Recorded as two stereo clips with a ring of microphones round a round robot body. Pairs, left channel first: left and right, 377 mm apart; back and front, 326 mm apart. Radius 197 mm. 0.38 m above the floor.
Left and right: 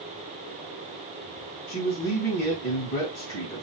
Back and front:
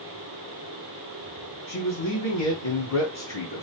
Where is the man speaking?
140° left, 3 m.